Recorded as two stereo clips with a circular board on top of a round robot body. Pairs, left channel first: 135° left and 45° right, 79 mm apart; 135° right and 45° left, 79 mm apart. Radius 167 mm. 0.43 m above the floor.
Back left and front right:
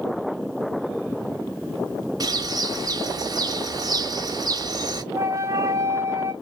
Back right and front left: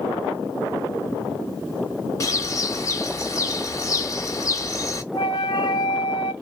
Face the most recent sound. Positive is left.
turn(degrees=-100)